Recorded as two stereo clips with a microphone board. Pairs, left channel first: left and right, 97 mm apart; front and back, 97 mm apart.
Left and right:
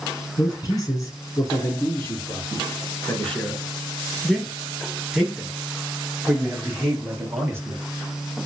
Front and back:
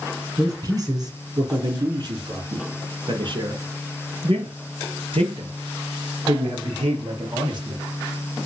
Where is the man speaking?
135° left, 3 m; by 7.8 s 150° right, 4 m.